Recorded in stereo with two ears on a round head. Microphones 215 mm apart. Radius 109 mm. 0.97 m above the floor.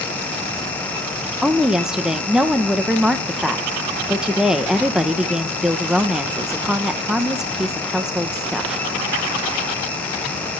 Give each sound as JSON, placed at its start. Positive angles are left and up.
{"t": 1.4, "sound": "a woman speaking", "side_deg": -5, "distance_m": 0.6}